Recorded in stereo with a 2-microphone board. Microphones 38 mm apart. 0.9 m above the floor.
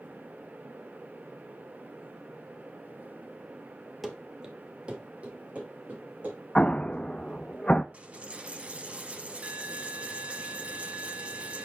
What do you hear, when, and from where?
4.0 s running footsteps: centre (ahead or behind), 1.1 m; by 7.4 s 45° right (ahead or behind), 5.5 m
6.5 s an explosion: 30° left (ahead or behind), 0.5 m
7.9 s a dropped coin: 35° right (ahead or behind), 1.2 m